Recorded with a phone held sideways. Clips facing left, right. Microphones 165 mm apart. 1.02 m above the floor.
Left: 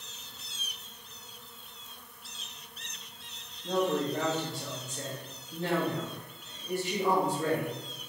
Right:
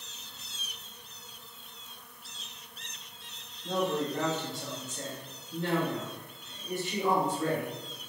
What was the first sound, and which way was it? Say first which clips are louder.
A man speaking: left 2 dB; 25° left (ahead or behind).